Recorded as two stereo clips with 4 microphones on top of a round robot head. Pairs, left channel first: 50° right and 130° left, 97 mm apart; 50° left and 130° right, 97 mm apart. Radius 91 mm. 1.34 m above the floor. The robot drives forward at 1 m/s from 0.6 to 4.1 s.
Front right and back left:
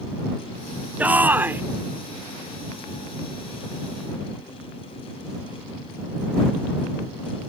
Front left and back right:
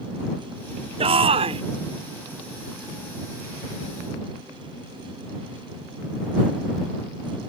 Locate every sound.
1.0 s a shout: 155° right; by 1.6 s 160° right